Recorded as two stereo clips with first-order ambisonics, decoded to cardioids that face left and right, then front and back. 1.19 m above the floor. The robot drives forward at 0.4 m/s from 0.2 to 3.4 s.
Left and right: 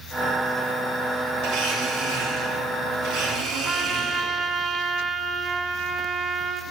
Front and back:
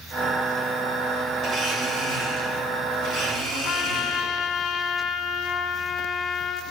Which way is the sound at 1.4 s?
120° right.